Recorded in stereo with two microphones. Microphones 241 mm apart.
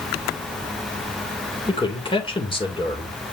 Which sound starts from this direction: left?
A man speaking, at 1.7 s.